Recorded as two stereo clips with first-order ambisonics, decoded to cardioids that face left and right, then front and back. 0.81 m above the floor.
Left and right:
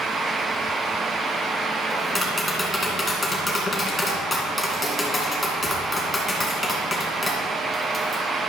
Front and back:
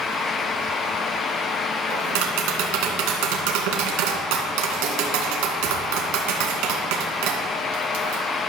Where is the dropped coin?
I don't hear a dropped coin.